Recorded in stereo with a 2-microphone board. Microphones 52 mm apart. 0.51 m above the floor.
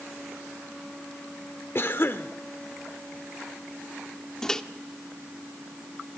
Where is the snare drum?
No snare drum in this recording.